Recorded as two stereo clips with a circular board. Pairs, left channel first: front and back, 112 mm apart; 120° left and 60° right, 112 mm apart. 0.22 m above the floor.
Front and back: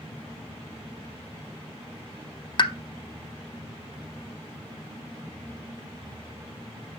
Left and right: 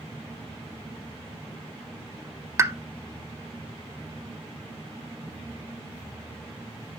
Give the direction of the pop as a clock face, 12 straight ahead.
12 o'clock.